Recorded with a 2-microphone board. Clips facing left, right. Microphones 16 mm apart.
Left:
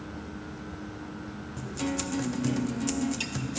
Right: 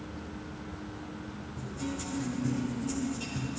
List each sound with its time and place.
1.6 s a guitar: 60° left (ahead or behind), 0.6 m